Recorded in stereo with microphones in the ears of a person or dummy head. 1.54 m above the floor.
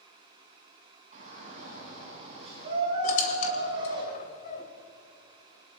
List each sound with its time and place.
1.1 s a shout: 50° right (ahead or behind), 8 m; by 4.0 s 30° right (ahead or behind), 8 m
3.0 s a squeak: 50° left (ahead or behind), 2.5 m